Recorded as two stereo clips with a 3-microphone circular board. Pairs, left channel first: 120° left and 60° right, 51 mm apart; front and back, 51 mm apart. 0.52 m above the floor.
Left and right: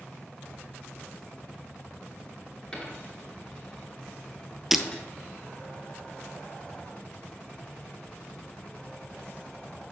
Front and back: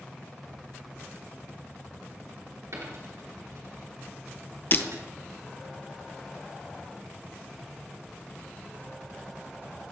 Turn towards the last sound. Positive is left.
turn(degrees=25)